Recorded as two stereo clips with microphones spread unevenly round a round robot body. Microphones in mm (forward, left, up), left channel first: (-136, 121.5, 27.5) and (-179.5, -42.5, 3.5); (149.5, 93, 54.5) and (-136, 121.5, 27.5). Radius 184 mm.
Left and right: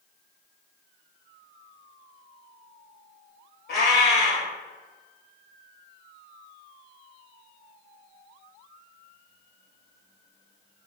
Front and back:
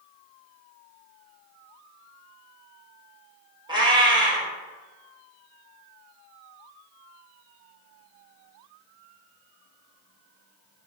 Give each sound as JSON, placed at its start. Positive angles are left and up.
{"t": 3.7, "sound": "a cat meowing", "azimuth_deg": 100, "distance_m": 1.1}